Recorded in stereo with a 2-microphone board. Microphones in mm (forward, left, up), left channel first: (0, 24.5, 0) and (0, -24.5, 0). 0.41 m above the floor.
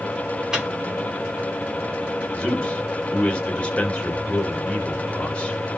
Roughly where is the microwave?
Centre.